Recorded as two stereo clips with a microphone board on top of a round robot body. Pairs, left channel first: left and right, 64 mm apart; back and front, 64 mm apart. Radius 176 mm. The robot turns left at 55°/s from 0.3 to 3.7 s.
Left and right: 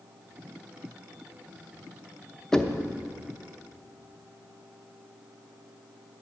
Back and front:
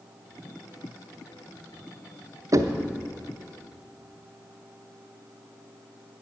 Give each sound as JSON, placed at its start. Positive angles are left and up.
{"t": 2.5, "sound": "knocking", "azimuth_deg": 15, "distance_m": 1.0}